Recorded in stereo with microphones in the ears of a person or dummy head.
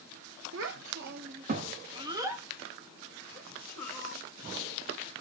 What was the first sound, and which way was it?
A child speaking, 75° right (ahead or behind).